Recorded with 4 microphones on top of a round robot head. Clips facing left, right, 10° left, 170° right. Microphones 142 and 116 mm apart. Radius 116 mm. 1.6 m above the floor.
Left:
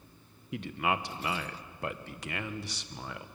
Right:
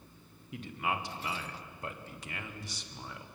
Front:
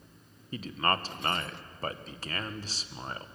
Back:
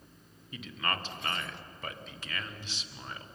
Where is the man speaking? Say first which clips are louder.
Left 4 dB, front 6 dB; 65° left, 1.6 m.